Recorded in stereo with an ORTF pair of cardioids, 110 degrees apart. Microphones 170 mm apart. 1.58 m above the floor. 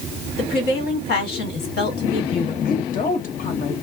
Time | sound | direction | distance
0.4 | a woman speaking | 65° left | 1.4 m
2.6 | a woman speaking | 55° left | 1.1 m